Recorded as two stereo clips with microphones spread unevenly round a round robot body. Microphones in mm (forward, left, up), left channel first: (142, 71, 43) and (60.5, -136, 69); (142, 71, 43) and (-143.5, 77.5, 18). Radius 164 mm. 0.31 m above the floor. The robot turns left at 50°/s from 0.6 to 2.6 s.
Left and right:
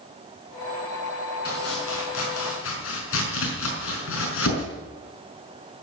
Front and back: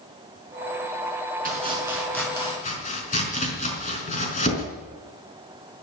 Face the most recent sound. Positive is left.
turn(degrees=60)